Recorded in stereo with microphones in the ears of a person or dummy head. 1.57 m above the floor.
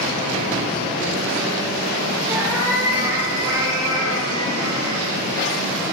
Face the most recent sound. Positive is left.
turn(degrees=-25)  # may be behind; listen again after turning